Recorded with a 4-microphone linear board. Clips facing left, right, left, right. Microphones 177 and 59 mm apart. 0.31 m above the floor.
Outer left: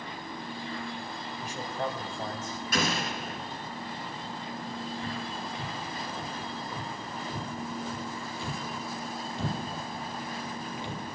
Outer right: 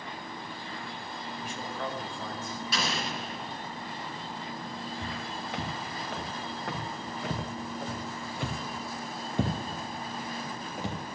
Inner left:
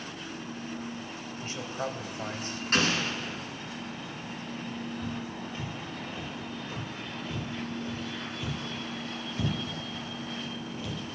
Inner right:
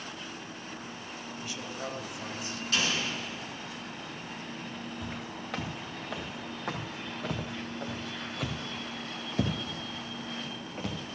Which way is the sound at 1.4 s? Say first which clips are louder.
Outer left 3 dB, inner left 5 dB; 40° left (ahead or behind).